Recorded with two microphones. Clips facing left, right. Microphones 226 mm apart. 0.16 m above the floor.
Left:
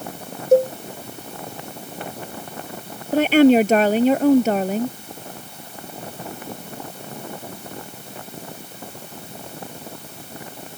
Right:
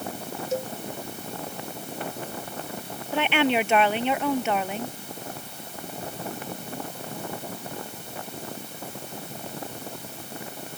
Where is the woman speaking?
40° left (ahead or behind).